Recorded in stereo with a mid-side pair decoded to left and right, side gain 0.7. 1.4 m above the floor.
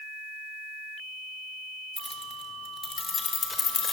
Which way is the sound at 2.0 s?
Straight ahead.